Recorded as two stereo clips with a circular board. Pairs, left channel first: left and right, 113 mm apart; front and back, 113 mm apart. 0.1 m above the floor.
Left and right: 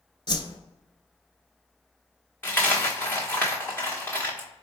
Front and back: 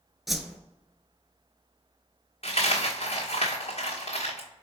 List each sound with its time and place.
0.3 s a whoosh: 90° left, 0.5 m
2.4 s a dropped coin: 20° left, 1.2 m